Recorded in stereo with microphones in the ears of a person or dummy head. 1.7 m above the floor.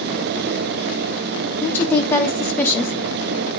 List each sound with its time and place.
1.6 s a woman speaking: 10° left (ahead or behind), 1.1 m